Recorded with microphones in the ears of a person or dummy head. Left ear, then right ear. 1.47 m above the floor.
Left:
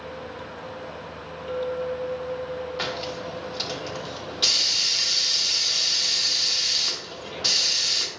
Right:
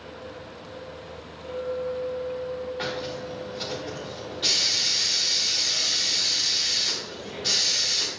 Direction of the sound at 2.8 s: 60° left (ahead or behind).